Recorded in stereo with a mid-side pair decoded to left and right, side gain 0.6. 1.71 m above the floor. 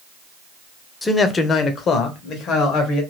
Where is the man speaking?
15° left, 0.6 m; by 3.0 s 65° left, 1.5 m.